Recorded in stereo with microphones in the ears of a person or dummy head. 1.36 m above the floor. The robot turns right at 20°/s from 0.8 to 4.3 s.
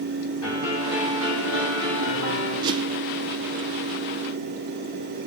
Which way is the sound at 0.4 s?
95° left.